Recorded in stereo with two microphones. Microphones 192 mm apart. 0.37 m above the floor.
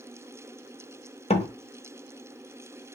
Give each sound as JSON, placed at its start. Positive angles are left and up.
{"t": 1.3, "sound": "a door slam", "side_deg": 35, "distance_m": 0.7}